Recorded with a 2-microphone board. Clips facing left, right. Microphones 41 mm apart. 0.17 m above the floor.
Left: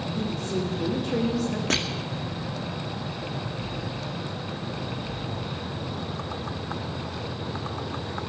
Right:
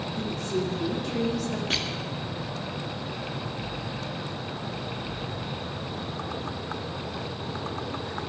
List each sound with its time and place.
0.1 s a woman speaking: 50° left (ahead or behind), 8.5 m
1.7 s crushing: 60° left (ahead or behind), 2 m